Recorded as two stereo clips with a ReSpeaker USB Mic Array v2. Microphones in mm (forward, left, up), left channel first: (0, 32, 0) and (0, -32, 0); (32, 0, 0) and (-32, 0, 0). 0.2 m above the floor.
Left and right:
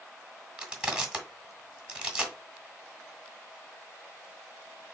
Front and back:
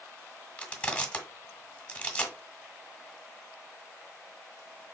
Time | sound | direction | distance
0.6 | crushing | 30° right | 1.5 m